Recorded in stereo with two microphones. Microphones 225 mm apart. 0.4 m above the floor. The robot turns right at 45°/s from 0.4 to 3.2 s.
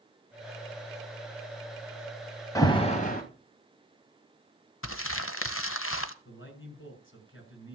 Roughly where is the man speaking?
Left.